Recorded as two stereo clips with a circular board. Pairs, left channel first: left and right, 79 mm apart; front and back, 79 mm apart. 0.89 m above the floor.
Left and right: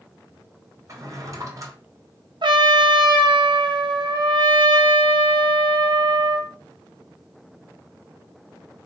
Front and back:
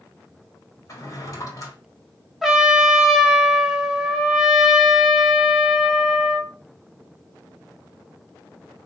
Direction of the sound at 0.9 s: 45° right.